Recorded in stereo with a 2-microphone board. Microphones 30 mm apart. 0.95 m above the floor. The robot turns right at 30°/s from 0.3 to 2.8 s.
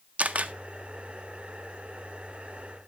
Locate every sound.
0.2 s a camera shutter: 45° right (ahead or behind), 0.5 m